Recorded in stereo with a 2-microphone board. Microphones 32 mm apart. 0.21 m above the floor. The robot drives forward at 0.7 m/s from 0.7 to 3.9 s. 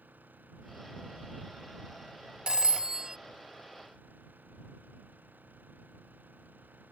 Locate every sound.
0.0 s an engine running: 65° right (ahead or behind); by 6.9 s 70° right (ahead or behind)
2.5 s a phone ringing: 30° right (ahead or behind); by 3.2 s 20° right (ahead or behind)